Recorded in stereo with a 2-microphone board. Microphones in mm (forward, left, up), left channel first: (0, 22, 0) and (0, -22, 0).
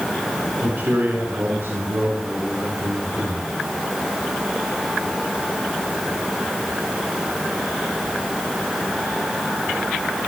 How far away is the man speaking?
About 3 m.